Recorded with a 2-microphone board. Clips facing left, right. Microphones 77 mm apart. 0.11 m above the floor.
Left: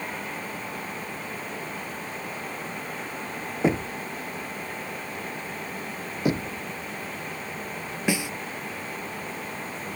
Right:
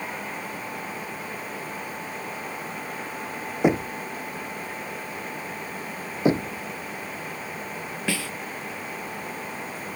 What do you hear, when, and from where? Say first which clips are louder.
3.6 s knocking: right 3 dB; 15° right (ahead or behind)
6.2 s knocking: right 4 dB; 25° right (ahead or behind)
8.1 s a snare drum: left 3 dB; 20° left (ahead or behind)